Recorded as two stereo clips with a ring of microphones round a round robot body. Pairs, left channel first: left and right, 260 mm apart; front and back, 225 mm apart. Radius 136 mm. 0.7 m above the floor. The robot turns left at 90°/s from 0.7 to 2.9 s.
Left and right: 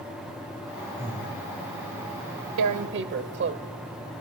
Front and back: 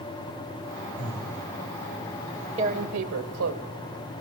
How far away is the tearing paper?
About 0.9 m.